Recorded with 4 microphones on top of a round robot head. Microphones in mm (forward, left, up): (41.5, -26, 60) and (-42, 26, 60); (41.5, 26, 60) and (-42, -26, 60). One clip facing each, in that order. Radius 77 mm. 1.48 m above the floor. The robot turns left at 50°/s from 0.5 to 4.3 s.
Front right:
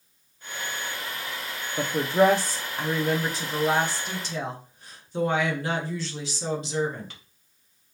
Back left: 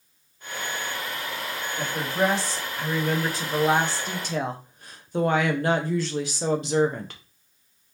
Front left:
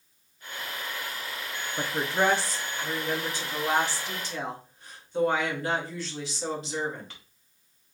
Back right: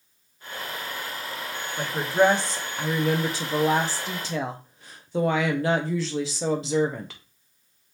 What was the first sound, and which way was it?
A woman speaking, 45° right.